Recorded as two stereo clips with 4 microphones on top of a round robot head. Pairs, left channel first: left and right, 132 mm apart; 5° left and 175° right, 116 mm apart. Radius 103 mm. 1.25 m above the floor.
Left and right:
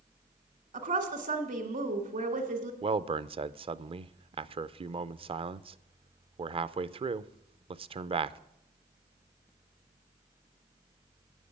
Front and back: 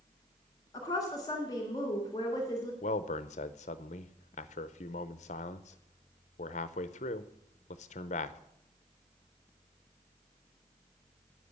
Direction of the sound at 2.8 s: 35° right.